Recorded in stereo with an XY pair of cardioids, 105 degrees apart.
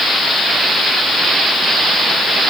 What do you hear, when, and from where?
Only background noise.